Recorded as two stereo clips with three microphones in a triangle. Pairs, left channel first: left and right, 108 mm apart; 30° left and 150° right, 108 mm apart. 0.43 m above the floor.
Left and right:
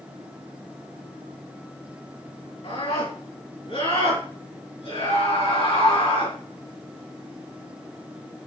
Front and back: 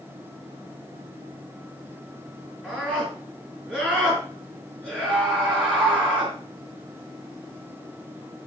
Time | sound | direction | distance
2.6 | a scream | 110° left | 5.5 m